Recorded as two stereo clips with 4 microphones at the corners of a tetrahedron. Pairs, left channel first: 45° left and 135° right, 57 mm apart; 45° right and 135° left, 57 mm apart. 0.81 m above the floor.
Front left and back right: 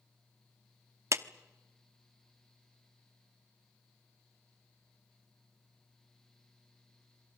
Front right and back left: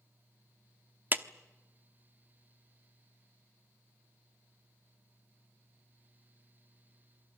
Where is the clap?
170° right, 1.0 m.